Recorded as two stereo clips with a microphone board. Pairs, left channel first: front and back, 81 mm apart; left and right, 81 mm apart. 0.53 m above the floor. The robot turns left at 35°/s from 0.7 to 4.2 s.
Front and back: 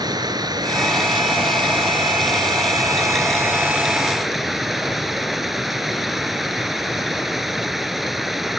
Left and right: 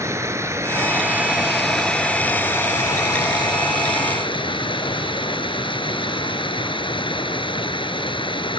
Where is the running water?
145° right; by 8.6 s 90° left.